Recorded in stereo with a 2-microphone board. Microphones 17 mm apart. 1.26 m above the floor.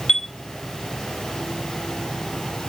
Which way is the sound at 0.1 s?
35° left (ahead or behind).